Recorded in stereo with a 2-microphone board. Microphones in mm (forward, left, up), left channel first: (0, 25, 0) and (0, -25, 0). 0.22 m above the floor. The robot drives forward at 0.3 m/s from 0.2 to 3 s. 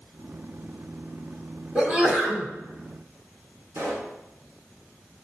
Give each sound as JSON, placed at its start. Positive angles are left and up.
{"t": 1.8, "sound": "a sneeze", "side_deg": -25, "distance_m": 1.1}
{"t": 3.8, "sound": "a pop", "side_deg": -55, "distance_m": 2.0}